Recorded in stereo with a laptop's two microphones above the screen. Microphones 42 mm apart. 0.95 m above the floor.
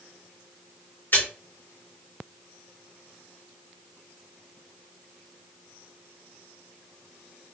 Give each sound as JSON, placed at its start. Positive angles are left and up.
{"t": 1.1, "sound": "a splash", "side_deg": 55, "distance_m": 2.5}